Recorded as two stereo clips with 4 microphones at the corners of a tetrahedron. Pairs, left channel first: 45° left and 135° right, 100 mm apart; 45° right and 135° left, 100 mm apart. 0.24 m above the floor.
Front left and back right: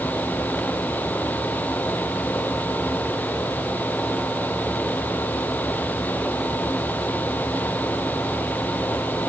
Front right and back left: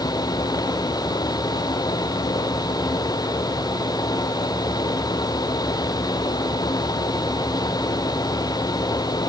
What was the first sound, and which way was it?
Only background noise.